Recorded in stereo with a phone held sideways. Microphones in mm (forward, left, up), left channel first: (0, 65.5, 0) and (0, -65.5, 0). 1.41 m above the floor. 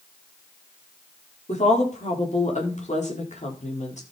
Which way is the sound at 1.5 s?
60° left (ahead or behind).